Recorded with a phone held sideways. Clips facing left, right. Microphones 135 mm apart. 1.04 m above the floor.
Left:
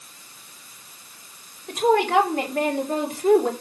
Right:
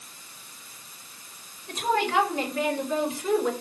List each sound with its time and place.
1.7 s a woman speaking: 70° left (ahead or behind), 3.5 m; by 3.5 s 55° left (ahead or behind), 3 m